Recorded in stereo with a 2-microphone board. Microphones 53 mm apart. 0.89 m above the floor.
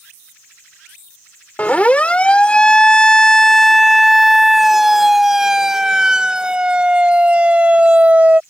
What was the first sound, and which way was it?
A siren, 30° left (ahead or behind).